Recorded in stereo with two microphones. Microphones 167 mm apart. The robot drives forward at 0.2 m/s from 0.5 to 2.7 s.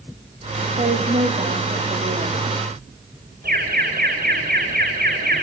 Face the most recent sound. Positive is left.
turn(degrees=-60)  # may be behind; listen again after turning